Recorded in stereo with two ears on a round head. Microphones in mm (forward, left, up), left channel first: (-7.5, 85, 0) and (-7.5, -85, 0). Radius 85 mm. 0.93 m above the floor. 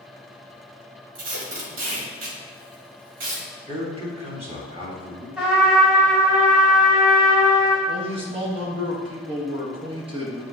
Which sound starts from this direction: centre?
A trumpet, at 5.4 s.